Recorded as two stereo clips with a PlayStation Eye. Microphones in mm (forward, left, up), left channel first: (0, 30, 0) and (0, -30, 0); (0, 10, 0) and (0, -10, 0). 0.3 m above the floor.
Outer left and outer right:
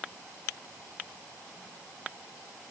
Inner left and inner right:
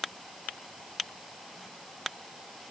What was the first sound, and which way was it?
Only background noise.